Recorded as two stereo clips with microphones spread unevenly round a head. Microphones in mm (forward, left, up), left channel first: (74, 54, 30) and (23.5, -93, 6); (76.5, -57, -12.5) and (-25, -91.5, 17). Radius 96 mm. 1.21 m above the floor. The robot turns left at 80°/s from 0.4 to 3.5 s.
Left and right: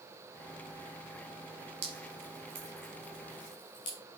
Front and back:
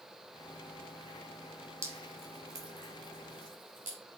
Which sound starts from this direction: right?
Dripping, at 1.8 s.